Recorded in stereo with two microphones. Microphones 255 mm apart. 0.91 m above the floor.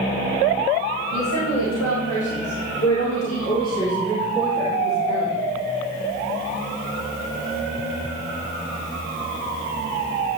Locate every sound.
1.1 s a woman speaking: 75° left (ahead or behind), 4.5 m; by 5.3 s 25° right (ahead or behind), 3 m